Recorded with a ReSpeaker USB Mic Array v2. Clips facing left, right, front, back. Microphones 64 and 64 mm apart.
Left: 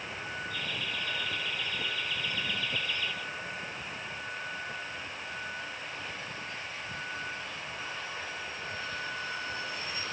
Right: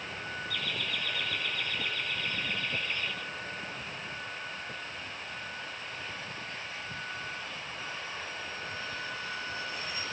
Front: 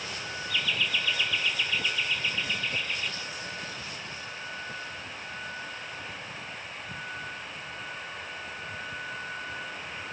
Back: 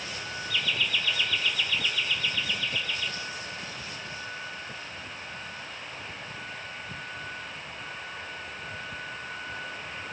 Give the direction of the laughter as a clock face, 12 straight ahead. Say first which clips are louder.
Right 1 dB, even; 3 o'clock.